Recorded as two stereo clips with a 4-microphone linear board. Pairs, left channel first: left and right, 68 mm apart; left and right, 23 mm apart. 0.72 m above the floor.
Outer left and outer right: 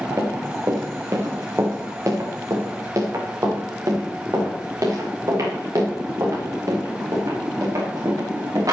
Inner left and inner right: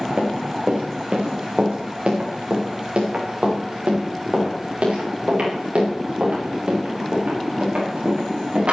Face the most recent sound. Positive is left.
turn(degrees=-55)  # may be behind; listen again after turning